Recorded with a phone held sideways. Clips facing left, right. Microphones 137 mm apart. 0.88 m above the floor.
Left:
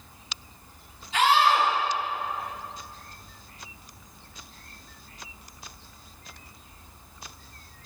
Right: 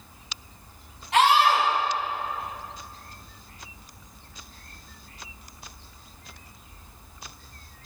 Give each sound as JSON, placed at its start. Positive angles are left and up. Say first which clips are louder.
{"t": 1.1, "sound": "a scream", "louder": "right 2 dB", "side_deg": -85, "distance_m": 7.5}